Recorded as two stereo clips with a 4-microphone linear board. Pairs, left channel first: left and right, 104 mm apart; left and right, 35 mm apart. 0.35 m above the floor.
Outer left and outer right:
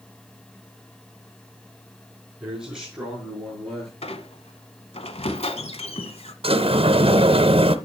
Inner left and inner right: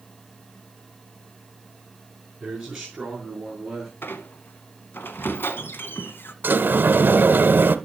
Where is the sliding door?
65° right (ahead or behind), 0.7 m.